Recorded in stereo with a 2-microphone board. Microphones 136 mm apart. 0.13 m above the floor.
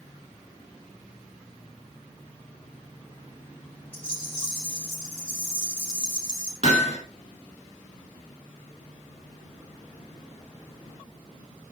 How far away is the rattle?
About 4.5 m.